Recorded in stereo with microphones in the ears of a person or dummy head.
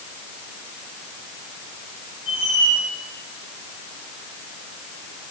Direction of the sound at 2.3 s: 35° left (ahead or behind).